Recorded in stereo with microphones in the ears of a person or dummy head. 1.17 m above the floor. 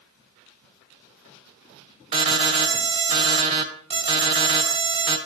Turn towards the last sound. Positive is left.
turn(degrees=-30)  # may be behind; listen again after turning